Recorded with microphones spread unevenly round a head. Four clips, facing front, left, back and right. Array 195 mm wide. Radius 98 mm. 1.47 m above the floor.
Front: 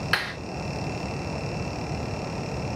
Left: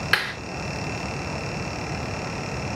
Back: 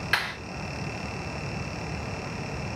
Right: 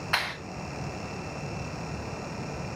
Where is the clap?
75° left, 3 m.